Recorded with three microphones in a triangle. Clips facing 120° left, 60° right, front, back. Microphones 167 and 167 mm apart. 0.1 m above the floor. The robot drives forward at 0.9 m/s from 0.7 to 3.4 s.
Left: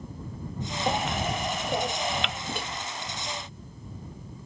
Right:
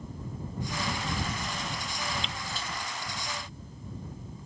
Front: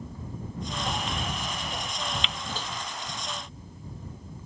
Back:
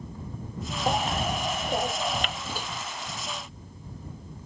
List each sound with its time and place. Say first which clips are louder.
0.9 s a baby crying: left 6 dB, back 9 dB; 135° left; by 2.4 s 140° left
2.5 s a microwave: left 5 dB, back 1 dB; 100° left; by 2.7 s 105° left